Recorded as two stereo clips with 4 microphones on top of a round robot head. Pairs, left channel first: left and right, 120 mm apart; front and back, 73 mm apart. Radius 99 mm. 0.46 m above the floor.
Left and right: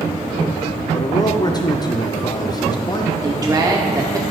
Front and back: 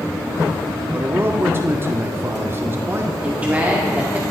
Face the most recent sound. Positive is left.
turn(degrees=-125)